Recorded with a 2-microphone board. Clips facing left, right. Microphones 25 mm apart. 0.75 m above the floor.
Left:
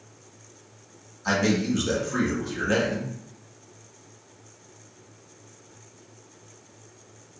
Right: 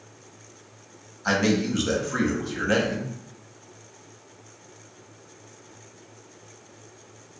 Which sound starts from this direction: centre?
A man speaking, at 1.2 s.